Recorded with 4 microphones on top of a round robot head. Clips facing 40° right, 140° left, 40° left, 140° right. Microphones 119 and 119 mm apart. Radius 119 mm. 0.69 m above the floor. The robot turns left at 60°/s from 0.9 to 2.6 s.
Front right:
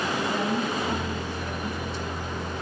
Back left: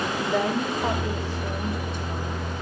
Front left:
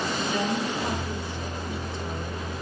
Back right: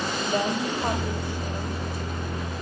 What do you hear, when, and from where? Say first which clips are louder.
0.3 s a woman speaking: back left 2 dB, back right 3 dB; 165° left, 3.5 m; by 2.5 s 70° left, 3.5 m